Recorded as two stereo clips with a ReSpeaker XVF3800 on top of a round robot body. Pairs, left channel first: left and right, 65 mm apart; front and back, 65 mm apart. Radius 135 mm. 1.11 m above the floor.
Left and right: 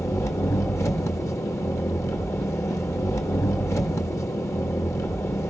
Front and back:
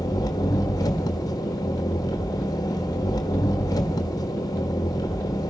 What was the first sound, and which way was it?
An engine running, 40° left.